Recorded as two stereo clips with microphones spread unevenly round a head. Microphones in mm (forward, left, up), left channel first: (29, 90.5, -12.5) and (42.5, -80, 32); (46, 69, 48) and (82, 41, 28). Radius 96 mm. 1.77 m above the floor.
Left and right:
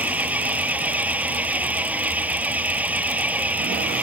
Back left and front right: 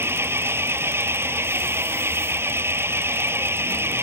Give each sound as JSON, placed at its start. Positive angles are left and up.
{"t": 0.0, "sound": "an engine running", "azimuth_deg": -5}